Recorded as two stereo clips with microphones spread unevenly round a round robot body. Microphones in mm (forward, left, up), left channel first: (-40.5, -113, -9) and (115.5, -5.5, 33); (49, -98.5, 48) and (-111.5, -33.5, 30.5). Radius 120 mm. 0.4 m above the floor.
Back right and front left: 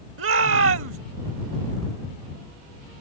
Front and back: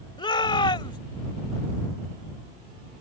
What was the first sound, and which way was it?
A shout, 45° left.